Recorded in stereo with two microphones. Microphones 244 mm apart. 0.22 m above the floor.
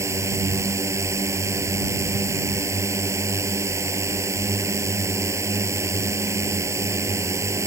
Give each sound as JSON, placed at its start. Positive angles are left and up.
{"t": 0.0, "sound": "a drone", "side_deg": -10}